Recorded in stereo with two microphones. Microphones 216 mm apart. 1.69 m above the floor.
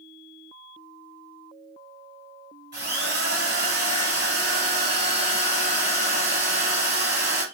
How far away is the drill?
About 2 m.